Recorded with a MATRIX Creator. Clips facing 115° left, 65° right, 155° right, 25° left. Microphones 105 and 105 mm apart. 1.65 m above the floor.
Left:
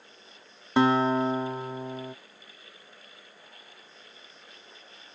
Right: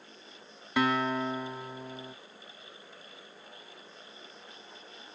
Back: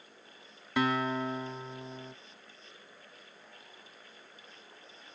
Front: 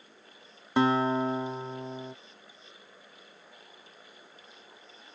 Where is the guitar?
70° left.